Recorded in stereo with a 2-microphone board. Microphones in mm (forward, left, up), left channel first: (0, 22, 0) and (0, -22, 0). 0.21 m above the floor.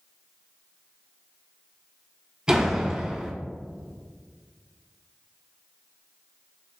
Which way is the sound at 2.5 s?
20° right (ahead or behind).